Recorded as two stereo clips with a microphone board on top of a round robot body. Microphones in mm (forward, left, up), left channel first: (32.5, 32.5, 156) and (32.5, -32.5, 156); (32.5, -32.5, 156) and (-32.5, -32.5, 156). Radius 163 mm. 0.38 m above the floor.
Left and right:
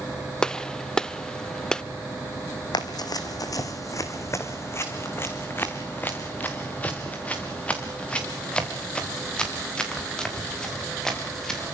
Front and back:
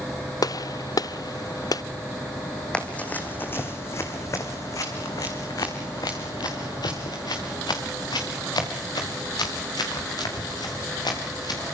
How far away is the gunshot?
About 0.8 m.